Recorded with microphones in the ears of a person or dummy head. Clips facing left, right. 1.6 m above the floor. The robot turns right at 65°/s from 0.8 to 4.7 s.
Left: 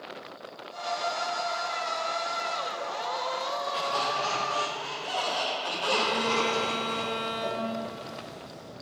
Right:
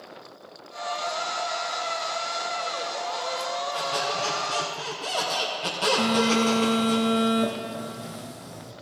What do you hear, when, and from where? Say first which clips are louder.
3.7 s a squeak: right 2 dB; 175° left, 3.5 m; by 7.0 s 120° right, 3.5 m
6.0 s a phone buzzing: right 8 dB; 50° right (ahead or behind), 1.2 m